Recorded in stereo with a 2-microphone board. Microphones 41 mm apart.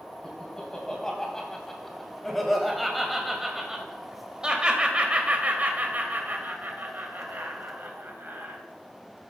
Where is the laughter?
15° left (ahead or behind), 3.5 m; by 8.6 s 70° right (ahead or behind), 3 m.